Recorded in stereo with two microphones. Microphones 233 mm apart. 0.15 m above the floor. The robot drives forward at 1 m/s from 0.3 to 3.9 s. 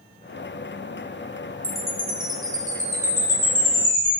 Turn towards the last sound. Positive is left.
turn(degrees=-10)  # may be behind; listen again after turning